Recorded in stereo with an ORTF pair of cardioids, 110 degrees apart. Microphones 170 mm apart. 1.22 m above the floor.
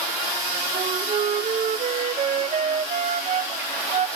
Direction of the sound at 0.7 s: 40° right.